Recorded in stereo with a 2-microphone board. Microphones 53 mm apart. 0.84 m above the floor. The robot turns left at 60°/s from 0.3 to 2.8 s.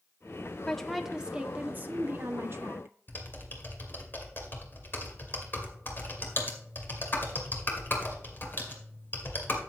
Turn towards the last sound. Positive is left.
turn(degrees=45)  # may be behind; listen again after turning